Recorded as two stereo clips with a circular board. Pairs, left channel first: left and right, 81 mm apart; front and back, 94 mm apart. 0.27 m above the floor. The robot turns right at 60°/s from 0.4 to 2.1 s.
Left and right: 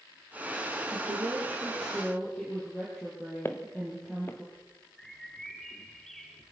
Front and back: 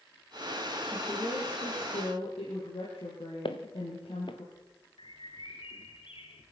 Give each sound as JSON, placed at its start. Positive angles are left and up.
{"t": 0.9, "sound": "a woman speaking", "azimuth_deg": -60, "distance_m": 8.0}
{"t": 3.5, "sound": "footsteps", "azimuth_deg": 30, "distance_m": 2.0}
{"t": 5.0, "sound": "a bird", "azimuth_deg": 5, "distance_m": 3.5}